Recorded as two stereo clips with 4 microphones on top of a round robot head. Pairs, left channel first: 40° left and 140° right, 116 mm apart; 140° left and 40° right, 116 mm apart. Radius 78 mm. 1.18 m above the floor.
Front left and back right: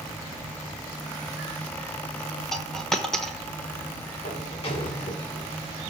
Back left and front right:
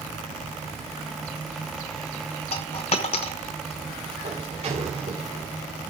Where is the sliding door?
Straight ahead, 3 m.